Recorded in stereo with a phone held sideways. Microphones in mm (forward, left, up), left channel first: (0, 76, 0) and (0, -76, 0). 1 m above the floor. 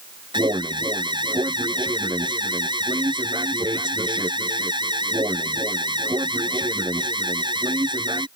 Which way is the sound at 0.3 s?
30° right (ahead or behind).